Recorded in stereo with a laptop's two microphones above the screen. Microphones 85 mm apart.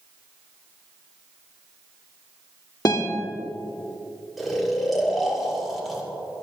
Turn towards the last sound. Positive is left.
turn(degrees=0)  # may be behind; listen again after turning